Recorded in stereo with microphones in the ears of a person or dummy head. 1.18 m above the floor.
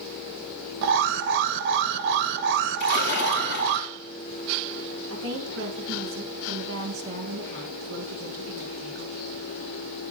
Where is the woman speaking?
50° right (ahead or behind), 1.2 m.